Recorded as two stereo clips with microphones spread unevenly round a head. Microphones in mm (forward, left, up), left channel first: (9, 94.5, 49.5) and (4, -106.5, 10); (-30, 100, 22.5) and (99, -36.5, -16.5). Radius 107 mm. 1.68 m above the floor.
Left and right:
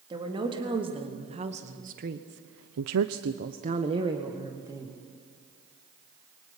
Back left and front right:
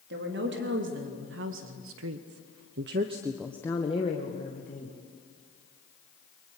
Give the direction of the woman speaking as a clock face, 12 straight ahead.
1 o'clock.